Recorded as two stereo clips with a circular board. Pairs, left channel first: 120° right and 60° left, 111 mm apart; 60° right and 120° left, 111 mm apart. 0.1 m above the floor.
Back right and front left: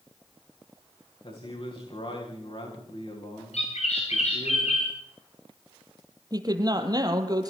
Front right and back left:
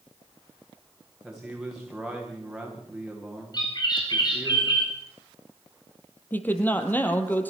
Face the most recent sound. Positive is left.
turn(degrees=10)